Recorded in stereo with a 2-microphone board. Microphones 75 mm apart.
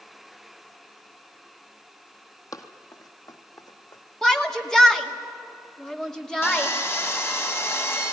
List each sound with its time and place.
2.5 s running footsteps: 50° left (ahead or behind), 1.6 m; by 4.0 s 60° left (ahead or behind), 2 m
4.2 s a shout: 10° left (ahead or behind), 2.0 m
6.4 s sawing: 35° left (ahead or behind), 2.5 m